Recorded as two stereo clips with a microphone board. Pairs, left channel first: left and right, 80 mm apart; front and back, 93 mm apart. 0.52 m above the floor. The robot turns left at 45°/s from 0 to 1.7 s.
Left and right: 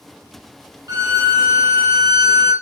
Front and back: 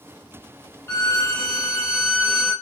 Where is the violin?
60° right, 1.3 m; by 2.5 s 95° right, 1.3 m.